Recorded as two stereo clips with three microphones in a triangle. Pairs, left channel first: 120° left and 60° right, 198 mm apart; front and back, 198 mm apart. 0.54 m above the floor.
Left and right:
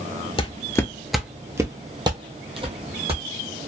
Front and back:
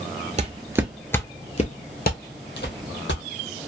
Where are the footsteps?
160° left, 0.6 m; by 3.2 s 5° right, 1.3 m.